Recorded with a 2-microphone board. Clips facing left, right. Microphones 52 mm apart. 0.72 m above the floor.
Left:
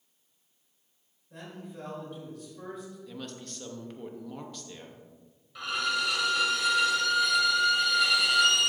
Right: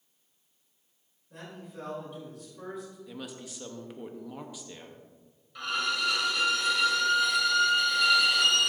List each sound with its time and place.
1.3 s a man speaking: 5° right (ahead or behind), 3 m
3.1 s a woman speaking: 5° right (ahead or behind), 0.8 m
5.5 s a violin: 5° left (ahead or behind), 1.7 m